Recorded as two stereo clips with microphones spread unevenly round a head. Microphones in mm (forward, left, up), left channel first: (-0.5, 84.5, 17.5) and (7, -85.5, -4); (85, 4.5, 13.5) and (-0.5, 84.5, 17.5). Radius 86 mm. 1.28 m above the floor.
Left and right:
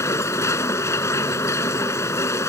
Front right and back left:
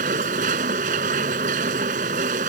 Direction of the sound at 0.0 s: 165° left.